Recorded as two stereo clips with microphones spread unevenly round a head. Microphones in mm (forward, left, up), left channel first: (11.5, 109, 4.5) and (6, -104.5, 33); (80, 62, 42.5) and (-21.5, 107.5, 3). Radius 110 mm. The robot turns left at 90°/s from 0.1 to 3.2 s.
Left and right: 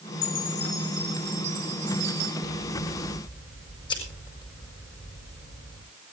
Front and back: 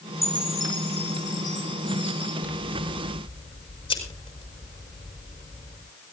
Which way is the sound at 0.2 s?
60° left.